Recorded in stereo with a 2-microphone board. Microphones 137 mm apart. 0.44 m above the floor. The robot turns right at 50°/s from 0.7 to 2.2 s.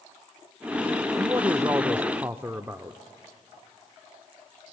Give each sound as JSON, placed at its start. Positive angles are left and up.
{"t": 1.2, "sound": "a man speaking", "side_deg": -20, "distance_m": 0.7}